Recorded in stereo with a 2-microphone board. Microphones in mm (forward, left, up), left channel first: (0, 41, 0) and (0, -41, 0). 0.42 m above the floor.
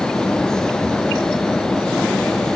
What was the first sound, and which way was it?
Only background noise.